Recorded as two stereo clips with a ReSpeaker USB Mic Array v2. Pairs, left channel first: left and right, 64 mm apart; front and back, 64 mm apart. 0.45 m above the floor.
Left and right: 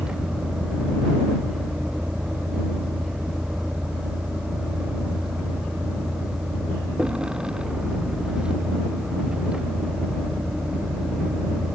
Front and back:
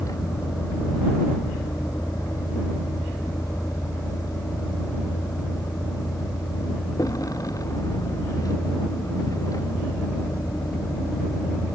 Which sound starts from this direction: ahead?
A vehicle, at 0.0 s.